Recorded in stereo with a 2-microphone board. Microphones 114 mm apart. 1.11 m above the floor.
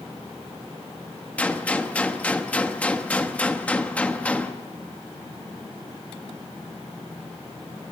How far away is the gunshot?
About 1.1 m.